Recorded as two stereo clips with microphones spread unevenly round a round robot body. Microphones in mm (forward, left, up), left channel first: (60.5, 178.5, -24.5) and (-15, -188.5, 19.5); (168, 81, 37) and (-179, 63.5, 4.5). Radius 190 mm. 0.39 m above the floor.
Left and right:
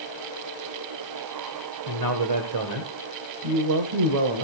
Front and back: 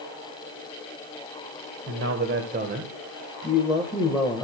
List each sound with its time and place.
1.9 s a man speaking: 135° right, 1.9 m; by 4.5 s 80° right, 1.9 m